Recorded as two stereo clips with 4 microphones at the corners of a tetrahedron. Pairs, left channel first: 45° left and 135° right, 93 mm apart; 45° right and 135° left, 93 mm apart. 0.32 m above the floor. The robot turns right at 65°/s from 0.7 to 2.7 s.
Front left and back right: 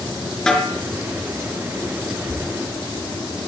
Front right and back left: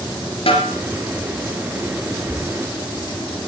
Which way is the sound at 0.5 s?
40° right.